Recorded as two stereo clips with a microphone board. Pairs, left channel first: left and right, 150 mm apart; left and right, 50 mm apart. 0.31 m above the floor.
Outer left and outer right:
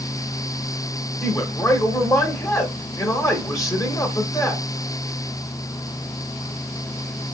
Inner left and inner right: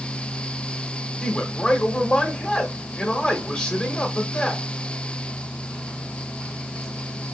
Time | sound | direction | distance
1.2 | a man speaking | 25° left (ahead or behind) | 1.0 m